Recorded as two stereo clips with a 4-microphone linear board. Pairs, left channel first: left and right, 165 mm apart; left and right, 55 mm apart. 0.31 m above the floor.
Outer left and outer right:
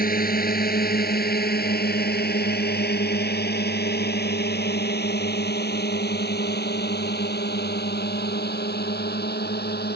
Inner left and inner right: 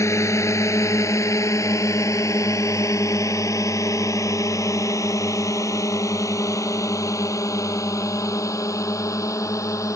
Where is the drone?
60° left (ahead or behind); by 10.0 s 75° left (ahead or behind).